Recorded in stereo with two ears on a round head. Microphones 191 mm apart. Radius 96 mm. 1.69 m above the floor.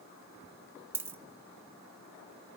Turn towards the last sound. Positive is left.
turn(degrees=-10)  # may be behind; listen again after turning